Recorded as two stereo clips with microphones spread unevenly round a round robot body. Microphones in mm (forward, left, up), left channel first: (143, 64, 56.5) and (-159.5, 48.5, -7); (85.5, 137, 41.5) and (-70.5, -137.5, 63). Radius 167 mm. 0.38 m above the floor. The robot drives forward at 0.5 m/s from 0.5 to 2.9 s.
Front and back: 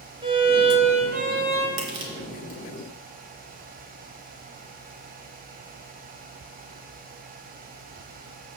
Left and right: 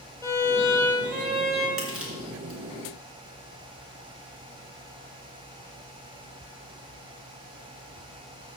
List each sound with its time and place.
0.2 s a violin: 135° left, 1.8 m; by 1.7 s 150° left, 2 m
1.8 s crushing: 150° left, 2.5 m; by 2.6 s 155° left, 3 m